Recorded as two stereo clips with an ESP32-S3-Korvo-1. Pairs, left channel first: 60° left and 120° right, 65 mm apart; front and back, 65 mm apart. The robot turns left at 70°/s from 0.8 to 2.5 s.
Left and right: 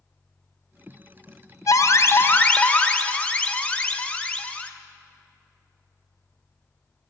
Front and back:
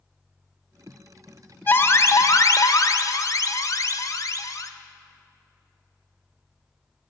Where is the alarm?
55° left, 0.7 m; by 4.7 s 5° right, 0.7 m.